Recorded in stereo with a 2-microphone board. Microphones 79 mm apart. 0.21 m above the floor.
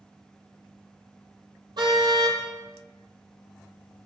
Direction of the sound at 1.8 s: 65° right (ahead or behind).